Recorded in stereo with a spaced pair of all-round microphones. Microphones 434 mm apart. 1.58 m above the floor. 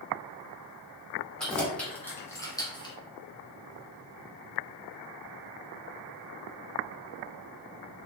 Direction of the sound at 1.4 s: Centre (ahead or behind).